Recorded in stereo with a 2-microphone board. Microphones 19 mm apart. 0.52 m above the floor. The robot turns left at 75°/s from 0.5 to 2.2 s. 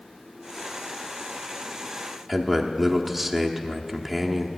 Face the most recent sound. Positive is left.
turn(degrees=-5)  # may be behind; listen again after turning